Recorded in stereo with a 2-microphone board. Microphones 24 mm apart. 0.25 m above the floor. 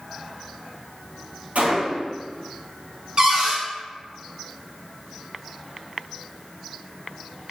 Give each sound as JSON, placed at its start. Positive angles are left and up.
{"t": 1.6, "sound": "a gunshot", "side_deg": -80, "distance_m": 1.0}
{"t": 3.2, "sound": "a cupboard door", "side_deg": -45, "distance_m": 0.8}